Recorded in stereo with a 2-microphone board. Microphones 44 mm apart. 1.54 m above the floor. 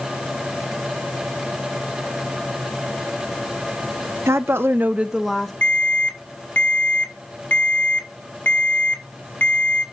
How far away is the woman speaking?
About 1.0 m.